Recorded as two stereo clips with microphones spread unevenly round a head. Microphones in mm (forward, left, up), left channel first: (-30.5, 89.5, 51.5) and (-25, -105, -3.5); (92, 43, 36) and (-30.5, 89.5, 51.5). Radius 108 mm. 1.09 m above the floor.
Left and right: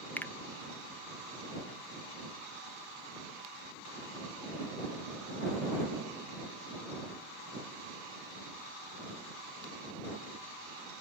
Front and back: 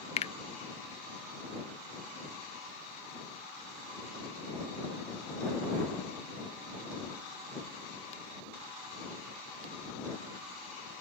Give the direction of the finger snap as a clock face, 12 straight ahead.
12 o'clock.